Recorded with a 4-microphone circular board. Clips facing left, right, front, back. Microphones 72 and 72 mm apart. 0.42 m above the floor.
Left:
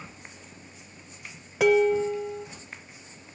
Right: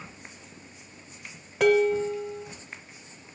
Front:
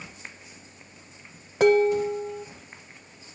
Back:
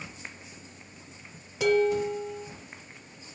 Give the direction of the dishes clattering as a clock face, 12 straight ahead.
12 o'clock.